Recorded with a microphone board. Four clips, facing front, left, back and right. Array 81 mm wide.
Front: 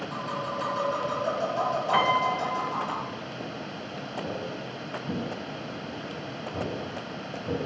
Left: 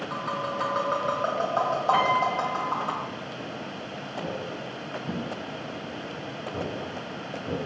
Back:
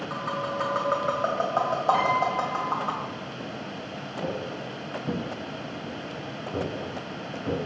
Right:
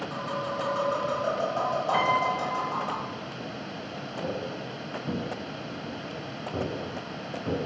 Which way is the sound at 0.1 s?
155° left.